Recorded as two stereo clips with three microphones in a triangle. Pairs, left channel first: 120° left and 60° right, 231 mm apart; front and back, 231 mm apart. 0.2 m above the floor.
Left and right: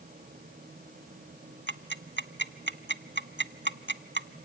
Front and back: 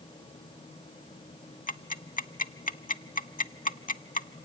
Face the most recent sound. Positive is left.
turn(degrees=-45)